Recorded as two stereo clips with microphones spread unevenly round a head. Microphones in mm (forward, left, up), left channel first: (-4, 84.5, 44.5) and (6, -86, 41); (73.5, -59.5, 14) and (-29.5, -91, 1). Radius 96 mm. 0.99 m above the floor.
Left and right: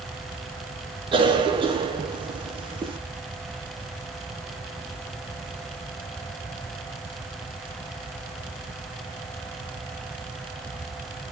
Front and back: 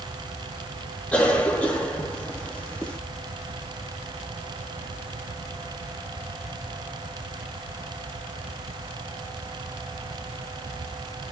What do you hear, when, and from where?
1.1 s a cough: 65° right, 0.8 m